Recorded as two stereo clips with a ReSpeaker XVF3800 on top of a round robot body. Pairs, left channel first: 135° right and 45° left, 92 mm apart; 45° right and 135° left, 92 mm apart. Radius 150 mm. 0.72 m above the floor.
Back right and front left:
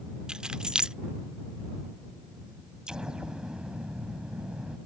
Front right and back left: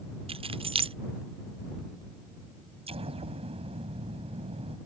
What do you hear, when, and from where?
0.3 s keys jangling: 125° left
2.9 s an explosion: 125° left